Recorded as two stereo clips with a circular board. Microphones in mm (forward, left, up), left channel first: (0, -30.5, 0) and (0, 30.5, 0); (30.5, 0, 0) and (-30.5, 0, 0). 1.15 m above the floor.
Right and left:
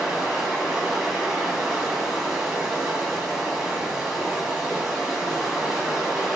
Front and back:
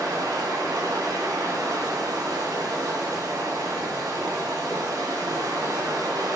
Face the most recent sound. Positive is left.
turn(degrees=180)